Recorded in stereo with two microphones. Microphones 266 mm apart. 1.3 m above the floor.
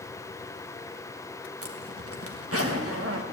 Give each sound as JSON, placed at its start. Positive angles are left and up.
{"t": 1.6, "sound": "a zipper", "side_deg": -60, "distance_m": 1.3}